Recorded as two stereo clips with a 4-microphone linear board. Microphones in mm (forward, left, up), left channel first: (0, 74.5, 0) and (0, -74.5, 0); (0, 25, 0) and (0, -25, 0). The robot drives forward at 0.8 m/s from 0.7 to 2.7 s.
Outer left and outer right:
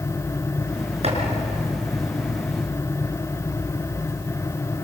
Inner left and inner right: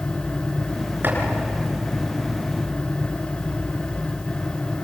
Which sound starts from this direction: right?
Chopping, at 1.0 s.